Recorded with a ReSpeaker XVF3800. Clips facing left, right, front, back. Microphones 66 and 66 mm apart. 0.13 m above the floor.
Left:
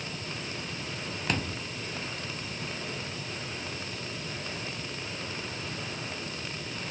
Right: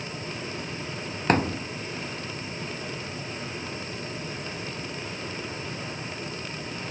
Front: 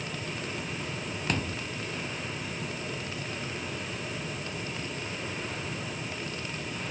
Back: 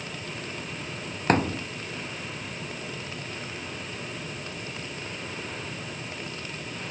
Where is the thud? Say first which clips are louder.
Right 10 dB, back 10 dB; 135° right.